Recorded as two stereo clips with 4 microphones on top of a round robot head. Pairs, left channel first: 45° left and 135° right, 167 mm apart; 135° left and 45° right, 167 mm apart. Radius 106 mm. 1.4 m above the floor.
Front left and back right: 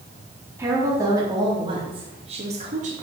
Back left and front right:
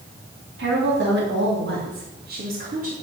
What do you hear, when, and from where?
0.6 s a woman speaking: 60° right, 3.5 m; by 2.9 s 90° right, 3 m